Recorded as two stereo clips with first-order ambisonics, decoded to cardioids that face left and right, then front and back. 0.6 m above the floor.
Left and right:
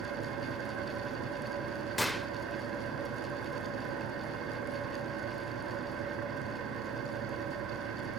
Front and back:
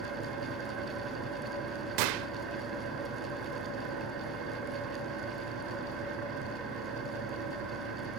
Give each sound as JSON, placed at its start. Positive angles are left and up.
{"t": 0.0, "sound": "an engine running", "azimuth_deg": -140, "distance_m": 5.0}
{"t": 2.0, "sound": "a gunshot", "azimuth_deg": 175, "distance_m": 0.6}